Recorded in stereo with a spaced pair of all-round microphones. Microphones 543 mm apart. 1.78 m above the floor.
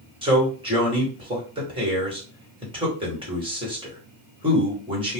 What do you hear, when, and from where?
0.2 s a man speaking: 10° right (ahead or behind), 1.3 m